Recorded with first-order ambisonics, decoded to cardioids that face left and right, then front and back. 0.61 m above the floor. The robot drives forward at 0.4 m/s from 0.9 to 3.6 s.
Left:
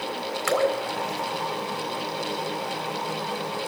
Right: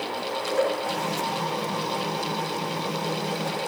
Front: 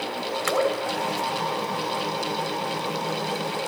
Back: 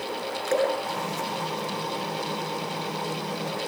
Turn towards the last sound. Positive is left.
turn(degrees=50)